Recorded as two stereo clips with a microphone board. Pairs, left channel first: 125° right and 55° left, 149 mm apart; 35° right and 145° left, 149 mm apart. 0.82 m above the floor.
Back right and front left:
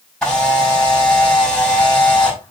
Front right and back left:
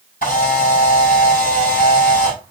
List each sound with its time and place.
0.2 s a camera shutter: 40° right, 5 m